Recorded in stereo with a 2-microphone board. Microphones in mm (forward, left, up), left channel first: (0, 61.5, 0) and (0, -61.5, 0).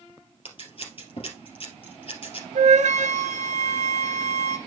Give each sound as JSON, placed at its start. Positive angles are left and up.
{"t": 0.5, "sound": "scissors", "side_deg": 50, "distance_m": 2.5}
{"t": 2.5, "sound": "a flute", "side_deg": -85, "distance_m": 0.8}